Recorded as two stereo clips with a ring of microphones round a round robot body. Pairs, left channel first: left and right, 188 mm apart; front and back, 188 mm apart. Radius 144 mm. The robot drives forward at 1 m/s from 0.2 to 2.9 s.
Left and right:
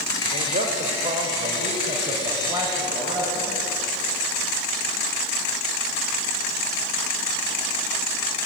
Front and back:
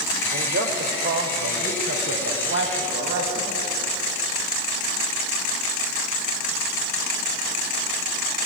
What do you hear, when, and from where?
0.3 s a man speaking: 140° right, 2.5 m; by 3.7 s 160° right, 4.5 m